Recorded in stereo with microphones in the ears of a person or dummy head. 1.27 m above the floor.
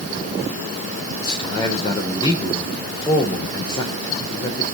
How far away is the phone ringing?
No phone ringing in this recording.